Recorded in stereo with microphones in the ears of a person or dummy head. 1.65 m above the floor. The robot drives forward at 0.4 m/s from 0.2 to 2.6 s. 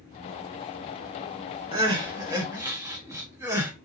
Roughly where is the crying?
Right.